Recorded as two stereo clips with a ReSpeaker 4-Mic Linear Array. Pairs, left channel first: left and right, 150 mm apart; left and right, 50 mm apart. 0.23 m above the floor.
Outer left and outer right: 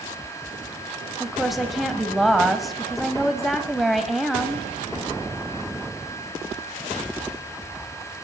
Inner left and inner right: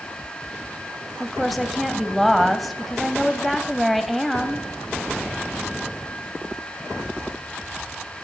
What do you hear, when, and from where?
1.2 s a woman speaking: centre (ahead or behind), 1.0 m